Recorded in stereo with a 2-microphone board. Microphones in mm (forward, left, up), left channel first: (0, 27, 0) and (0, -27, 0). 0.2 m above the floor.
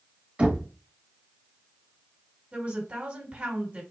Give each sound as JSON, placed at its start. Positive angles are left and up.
{"t": 0.4, "sound": "knocking", "side_deg": -20, "distance_m": 1.1}
{"t": 2.5, "sound": "a woman speaking", "side_deg": -25, "distance_m": 1.8}